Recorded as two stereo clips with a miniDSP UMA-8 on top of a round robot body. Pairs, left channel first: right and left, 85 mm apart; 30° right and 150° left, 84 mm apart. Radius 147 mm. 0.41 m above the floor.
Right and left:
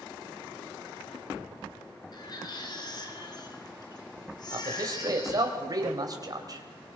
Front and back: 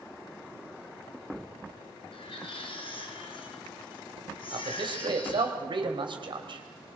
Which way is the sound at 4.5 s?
130° left.